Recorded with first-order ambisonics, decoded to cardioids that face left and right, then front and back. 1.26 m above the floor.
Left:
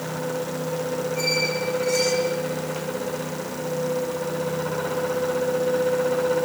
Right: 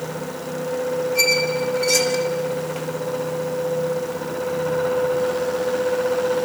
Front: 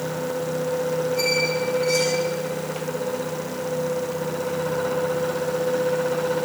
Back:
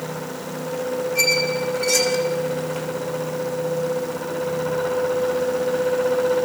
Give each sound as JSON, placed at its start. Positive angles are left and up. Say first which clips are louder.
{"t": 1.1, "sound": "a squeak", "louder": "right 5 dB, back 5 dB", "azimuth_deg": -120, "distance_m": 3.5}